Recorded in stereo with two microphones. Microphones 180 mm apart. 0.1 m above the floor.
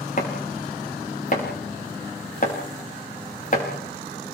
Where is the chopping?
50° left (ahead or behind), 5.5 m.